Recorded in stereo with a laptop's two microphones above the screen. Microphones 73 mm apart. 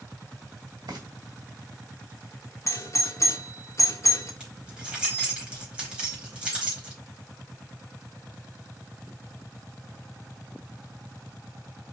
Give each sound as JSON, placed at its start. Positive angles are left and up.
{"t": 0.9, "sound": "frying", "side_deg": -70, "distance_m": 2.5}
{"t": 2.7, "sound": "a doorbell", "side_deg": 40, "distance_m": 1.7}
{"t": 4.4, "sound": "keys jangling", "side_deg": -15, "distance_m": 4.5}